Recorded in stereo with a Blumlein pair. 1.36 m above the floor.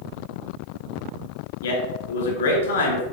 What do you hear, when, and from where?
1.6 s a man speaking: 65° left, 2.0 m